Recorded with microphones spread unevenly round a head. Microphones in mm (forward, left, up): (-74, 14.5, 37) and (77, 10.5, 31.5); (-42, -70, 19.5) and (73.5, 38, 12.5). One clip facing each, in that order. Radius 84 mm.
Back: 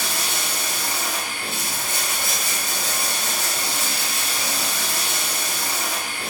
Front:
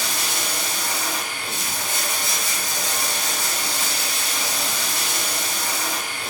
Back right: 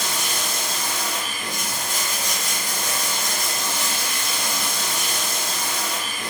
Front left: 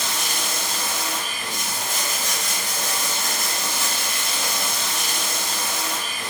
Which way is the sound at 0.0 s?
150° left.